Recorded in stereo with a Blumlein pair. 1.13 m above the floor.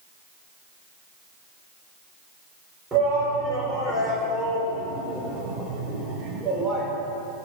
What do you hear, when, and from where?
2.9 s a shout: 15° right, 3.5 m